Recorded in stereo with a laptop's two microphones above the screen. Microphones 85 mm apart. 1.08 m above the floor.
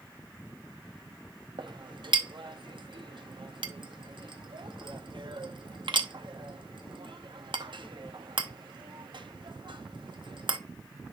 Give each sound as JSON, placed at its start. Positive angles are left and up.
{"t": 1.6, "sound": "a clink", "side_deg": -65, "distance_m": 0.8}